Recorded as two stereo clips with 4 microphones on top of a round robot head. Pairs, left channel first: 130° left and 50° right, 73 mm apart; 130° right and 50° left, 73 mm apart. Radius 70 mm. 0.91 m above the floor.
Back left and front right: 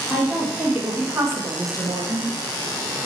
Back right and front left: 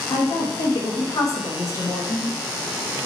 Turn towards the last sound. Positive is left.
turn(degrees=-75)